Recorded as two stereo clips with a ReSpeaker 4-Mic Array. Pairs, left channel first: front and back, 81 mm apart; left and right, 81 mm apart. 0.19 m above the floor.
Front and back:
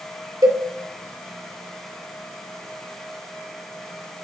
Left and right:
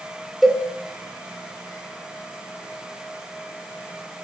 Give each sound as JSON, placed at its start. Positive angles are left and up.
{"t": 0.4, "sound": "a cowbell", "azimuth_deg": 180, "distance_m": 2.0}